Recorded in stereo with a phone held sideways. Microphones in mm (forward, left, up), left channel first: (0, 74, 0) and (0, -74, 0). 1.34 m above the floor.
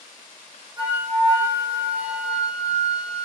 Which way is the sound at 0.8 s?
35° right (ahead or behind).